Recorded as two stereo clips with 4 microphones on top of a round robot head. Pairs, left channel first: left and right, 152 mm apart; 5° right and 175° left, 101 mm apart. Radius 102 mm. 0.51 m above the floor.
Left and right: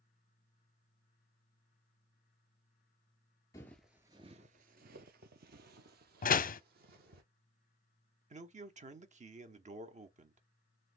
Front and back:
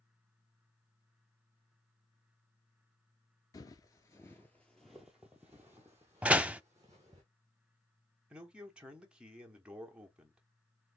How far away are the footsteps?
About 0.5 m.